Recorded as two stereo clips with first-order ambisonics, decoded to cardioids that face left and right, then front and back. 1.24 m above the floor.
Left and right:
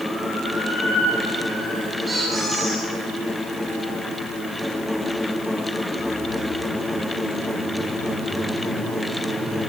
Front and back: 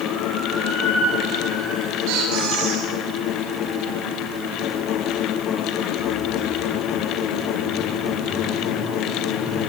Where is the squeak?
170° right, 8.5 m.